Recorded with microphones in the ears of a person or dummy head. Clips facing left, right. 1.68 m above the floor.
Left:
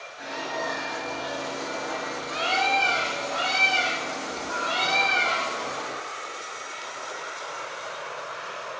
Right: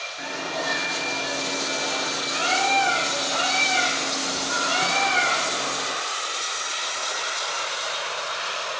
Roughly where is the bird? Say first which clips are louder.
Right 1 dB; right.